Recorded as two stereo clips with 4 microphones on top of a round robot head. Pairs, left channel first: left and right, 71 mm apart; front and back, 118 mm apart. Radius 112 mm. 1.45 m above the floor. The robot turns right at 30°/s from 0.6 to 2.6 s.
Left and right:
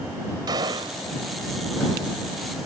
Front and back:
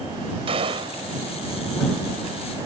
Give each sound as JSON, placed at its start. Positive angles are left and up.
{"t": 0.5, "sound": "a gunshot", "azimuth_deg": -130}